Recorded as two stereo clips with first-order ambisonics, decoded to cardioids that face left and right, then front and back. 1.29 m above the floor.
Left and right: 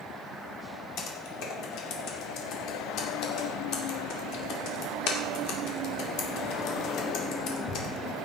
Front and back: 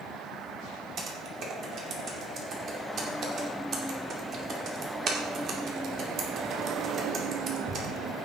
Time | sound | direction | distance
1.0 | typing on a keyboard | 125° left | 2.5 m